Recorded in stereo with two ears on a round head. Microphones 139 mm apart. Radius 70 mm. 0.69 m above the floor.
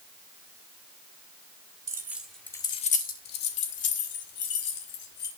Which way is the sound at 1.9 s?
20° right (ahead or behind).